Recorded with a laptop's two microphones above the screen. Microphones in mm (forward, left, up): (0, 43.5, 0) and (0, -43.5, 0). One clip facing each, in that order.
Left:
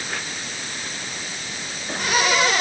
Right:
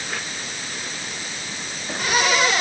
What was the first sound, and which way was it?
Only background noise.